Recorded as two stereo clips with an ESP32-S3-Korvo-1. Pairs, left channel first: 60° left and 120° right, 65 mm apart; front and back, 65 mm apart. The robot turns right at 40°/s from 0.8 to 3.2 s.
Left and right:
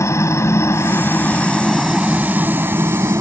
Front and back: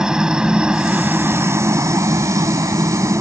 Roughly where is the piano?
I don't hear a piano.